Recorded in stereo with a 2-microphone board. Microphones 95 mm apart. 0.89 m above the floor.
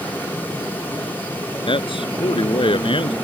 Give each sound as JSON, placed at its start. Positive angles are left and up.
{"t": 1.7, "sound": "a man speaking", "side_deg": 65}